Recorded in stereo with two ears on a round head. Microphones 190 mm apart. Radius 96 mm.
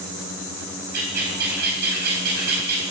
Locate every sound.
0.9 s a bird: 50° right (ahead or behind), 4 m